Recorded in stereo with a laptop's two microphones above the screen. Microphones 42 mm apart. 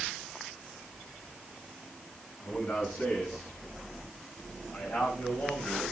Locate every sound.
2.4 s a man speaking: 35° left (ahead or behind), 8 m; by 5.9 s 30° left (ahead or behind), 6 m